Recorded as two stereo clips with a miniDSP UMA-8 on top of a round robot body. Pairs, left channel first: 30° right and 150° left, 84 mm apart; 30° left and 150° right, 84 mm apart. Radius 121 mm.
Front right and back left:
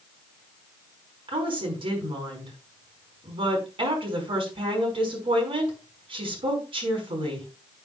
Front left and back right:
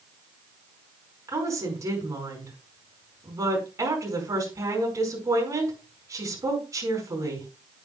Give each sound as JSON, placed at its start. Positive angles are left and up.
{"t": 1.3, "sound": "a woman speaking", "azimuth_deg": 155, "distance_m": 5.5}